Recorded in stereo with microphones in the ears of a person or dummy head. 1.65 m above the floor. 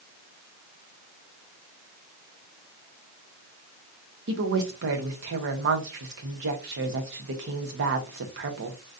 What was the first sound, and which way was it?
A woman speaking, 55° right (ahead or behind).